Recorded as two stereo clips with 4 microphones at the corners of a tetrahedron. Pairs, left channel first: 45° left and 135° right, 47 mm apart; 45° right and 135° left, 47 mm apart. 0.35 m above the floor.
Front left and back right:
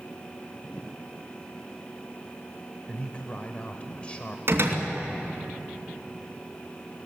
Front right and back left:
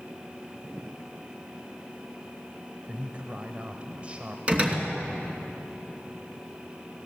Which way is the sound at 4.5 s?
165° right.